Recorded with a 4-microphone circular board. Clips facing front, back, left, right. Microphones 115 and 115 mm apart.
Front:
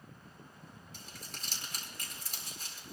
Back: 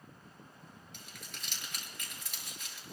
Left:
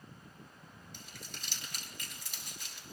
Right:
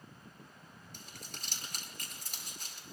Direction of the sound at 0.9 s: 50° right.